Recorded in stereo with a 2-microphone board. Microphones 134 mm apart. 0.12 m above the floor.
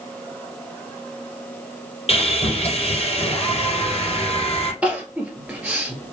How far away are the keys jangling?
I don't hear keys jangling.